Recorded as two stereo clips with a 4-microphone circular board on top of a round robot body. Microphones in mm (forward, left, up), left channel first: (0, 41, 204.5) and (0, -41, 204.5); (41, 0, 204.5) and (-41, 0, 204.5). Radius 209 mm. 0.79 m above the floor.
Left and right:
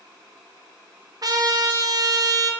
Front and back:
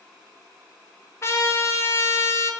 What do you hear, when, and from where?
1.2 s a trumpet: 55° right, 1.4 m